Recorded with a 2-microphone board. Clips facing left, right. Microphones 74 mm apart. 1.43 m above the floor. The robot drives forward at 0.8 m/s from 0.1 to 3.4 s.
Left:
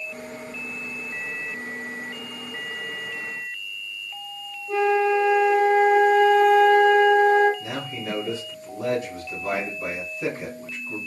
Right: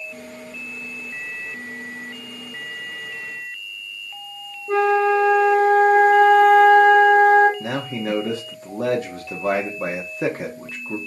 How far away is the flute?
About 0.7 m.